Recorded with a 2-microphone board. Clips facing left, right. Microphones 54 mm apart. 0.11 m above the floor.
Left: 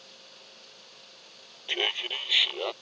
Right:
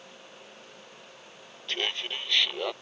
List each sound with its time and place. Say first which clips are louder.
1.7 s laughter: left 2 dB; 15° left (ahead or behind); by 2.7 s 5° right (ahead or behind)